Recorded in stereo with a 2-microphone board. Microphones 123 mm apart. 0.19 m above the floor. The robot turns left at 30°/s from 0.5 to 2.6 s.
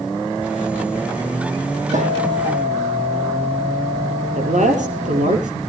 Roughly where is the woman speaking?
Right.